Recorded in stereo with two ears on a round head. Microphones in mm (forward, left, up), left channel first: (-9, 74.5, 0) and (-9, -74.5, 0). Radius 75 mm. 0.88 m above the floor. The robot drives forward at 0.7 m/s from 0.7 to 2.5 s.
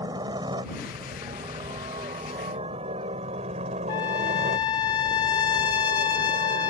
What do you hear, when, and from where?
0.0 s a helicopter: 25° right (ahead or behind); by 6.7 s 60° right (ahead or behind)
3.9 s a trumpet: 25° left (ahead or behind)